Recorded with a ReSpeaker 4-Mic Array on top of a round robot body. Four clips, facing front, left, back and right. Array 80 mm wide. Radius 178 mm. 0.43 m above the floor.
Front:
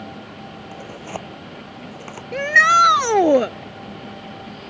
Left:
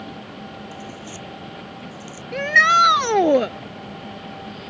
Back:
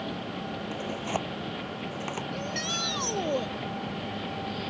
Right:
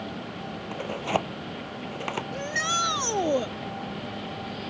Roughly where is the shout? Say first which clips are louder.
Left 16 dB, front 19 dB; ahead left.